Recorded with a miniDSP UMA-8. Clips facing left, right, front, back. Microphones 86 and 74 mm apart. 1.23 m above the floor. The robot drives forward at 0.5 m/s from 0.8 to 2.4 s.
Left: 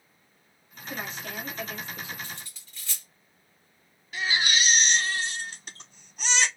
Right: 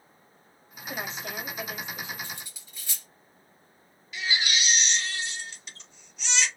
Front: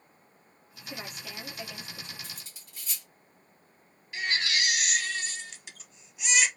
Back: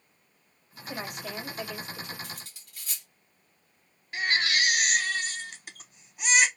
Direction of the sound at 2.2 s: 160° right.